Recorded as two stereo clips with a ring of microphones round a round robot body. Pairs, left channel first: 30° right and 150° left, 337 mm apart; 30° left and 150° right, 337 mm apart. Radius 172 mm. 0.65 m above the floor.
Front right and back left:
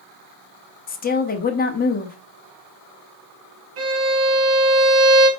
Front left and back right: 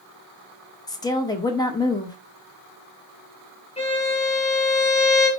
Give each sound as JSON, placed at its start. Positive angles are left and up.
{"t": 0.9, "sound": "a woman speaking", "azimuth_deg": -35, "distance_m": 0.7}
{"t": 3.8, "sound": "a violin", "azimuth_deg": 100, "distance_m": 1.7}